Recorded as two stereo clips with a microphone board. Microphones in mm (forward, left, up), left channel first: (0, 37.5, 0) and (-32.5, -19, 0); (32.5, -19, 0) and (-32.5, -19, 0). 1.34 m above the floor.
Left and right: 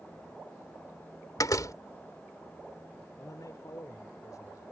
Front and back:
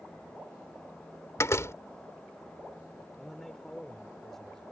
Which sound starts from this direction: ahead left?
A door slam, at 1.4 s.